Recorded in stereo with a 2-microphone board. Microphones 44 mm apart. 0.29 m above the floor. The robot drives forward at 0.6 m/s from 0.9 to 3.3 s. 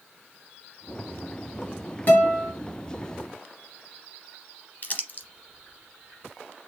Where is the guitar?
45° left (ahead or behind), 1.9 m; by 2.5 s 40° left (ahead or behind), 2.0 m.